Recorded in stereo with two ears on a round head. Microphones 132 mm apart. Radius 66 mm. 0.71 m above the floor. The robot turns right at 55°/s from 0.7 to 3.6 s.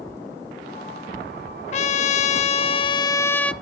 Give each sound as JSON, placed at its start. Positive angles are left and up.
{"t": 1.7, "sound": "a trumpet", "azimuth_deg": 70, "distance_m": 0.5}